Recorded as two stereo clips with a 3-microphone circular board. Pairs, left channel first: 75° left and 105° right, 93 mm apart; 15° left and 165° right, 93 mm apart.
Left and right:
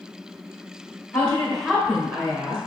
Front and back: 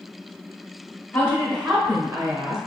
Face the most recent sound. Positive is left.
turn(degrees=-170)